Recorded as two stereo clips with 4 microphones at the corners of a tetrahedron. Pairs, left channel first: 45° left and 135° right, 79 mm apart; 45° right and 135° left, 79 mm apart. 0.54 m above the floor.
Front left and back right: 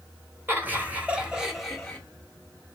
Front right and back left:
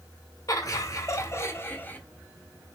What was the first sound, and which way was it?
Laughter, 75° right.